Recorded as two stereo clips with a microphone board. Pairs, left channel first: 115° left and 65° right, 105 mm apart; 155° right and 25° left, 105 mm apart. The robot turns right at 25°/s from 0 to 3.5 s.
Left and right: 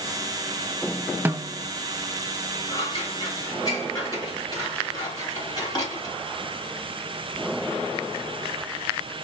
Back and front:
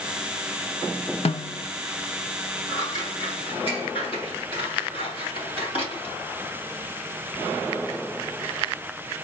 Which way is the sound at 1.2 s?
140° right.